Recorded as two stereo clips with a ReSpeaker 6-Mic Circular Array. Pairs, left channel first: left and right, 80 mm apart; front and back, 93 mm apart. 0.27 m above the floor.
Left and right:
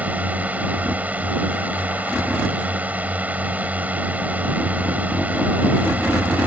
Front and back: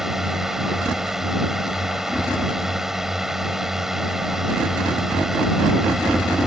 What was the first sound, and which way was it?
A drone, 105° right.